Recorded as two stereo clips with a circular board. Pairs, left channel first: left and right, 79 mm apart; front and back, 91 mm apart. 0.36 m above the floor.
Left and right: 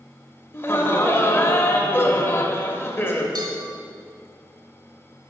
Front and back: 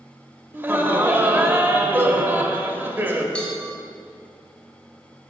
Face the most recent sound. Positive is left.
turn(degrees=-80)